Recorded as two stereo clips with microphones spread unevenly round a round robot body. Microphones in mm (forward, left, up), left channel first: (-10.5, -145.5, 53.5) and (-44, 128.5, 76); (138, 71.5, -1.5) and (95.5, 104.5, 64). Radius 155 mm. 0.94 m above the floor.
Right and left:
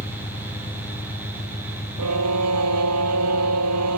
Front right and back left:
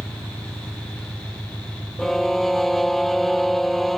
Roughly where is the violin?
Ahead left.